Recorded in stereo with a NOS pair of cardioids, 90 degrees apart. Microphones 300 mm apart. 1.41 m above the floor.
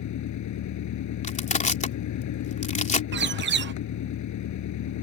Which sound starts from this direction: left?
An engine running, at 0.0 s.